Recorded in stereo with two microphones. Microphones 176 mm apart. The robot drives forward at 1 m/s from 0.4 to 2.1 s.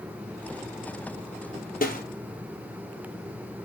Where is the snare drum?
55° left (ahead or behind), 2.5 m.